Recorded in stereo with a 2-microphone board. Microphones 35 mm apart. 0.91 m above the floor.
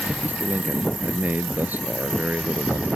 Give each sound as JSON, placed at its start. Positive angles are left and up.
{"t": 0.2, "sound": "a man speaking", "side_deg": -55}